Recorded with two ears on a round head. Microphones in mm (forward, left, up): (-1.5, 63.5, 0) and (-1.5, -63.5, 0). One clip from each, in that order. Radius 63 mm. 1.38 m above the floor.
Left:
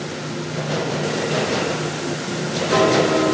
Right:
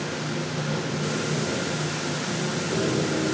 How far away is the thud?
No thud in this recording.